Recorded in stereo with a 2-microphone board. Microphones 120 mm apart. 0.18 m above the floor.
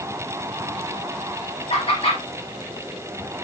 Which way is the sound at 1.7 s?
50° left (ahead or behind).